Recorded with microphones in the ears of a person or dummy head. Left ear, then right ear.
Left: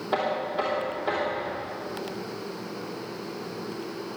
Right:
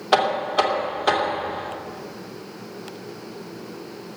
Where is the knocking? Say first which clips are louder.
Right 8 dB; 65° right (ahead or behind), 2.5 m.